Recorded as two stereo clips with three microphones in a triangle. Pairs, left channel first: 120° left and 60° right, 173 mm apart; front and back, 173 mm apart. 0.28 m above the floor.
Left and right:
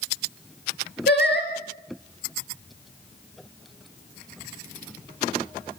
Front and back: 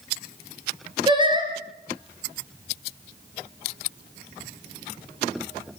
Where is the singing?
120° left, 4.5 m.